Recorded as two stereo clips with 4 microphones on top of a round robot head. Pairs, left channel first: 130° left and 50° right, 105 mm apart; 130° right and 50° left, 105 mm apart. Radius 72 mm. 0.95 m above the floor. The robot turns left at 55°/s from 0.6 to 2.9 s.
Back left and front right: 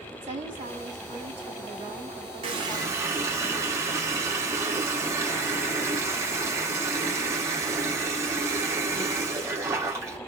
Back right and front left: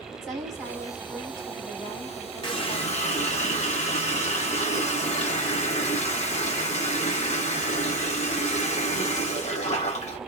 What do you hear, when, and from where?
0.2 s a woman speaking: 40° right, 3 m; by 3.2 s 165° right, 3 m
2.4 s a running tap: 85° right, 1.1 m; by 10.2 s 115° right, 1.1 m